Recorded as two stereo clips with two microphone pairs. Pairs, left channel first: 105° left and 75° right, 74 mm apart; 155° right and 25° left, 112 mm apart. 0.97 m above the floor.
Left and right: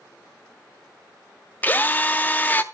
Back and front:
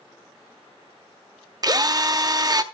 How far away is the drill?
About 0.5 m.